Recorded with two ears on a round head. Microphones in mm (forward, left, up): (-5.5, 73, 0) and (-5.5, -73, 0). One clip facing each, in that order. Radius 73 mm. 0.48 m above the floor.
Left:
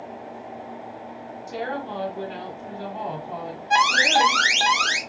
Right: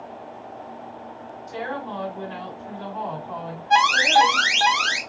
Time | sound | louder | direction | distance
1.5 | a woman speaking | left 1 dB | 40° left (ahead or behind) | 1.9 m
3.7 | an alarm | right 3 dB | 15° left (ahead or behind) | 0.6 m